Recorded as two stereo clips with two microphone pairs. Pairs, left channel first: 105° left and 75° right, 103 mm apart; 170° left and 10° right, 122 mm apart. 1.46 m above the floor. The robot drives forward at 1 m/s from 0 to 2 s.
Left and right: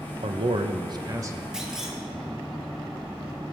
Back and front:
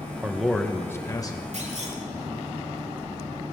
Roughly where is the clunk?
Ahead.